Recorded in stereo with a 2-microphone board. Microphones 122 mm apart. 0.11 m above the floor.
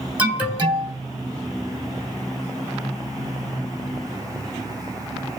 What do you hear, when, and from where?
0.2 s an alarm: 15° right (ahead or behind), 1.0 m